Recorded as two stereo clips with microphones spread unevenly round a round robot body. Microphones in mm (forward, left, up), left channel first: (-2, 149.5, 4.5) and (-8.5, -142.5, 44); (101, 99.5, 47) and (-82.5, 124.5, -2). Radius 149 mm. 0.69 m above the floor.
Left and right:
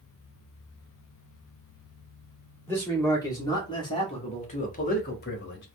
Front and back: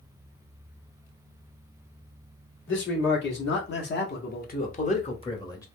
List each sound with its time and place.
2.7 s a man speaking: 10° left, 1.9 m; by 5.7 s 75° left, 1.0 m